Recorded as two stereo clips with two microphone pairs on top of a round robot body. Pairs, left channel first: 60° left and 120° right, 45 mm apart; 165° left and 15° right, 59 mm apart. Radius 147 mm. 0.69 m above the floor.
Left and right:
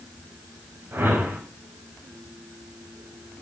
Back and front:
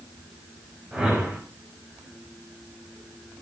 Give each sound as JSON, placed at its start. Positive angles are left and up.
{"t": 0.9, "sound": "a whoosh", "azimuth_deg": -85, "distance_m": 5.5}